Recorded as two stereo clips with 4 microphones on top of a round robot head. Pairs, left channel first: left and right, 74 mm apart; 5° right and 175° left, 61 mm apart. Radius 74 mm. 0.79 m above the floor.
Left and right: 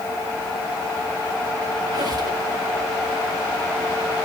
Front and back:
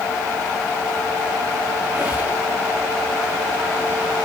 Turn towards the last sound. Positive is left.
turn(degrees=-115)